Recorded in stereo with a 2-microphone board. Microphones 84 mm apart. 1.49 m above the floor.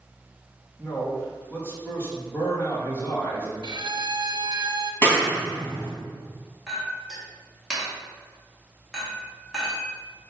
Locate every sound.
0.8 s a man speaking: 30° left (ahead or behind), 2.5 m
3.6 s a violin: 60° right (ahead or behind), 0.6 m
5.0 s a clap: 25° left (ahead or behind), 3 m
6.7 s a clink: centre (ahead or behind), 2.5 m